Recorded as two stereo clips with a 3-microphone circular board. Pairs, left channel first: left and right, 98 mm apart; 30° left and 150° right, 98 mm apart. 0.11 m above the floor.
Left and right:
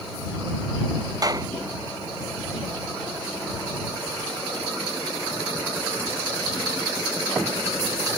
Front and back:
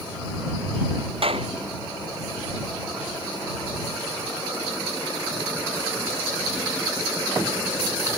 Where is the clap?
140° right.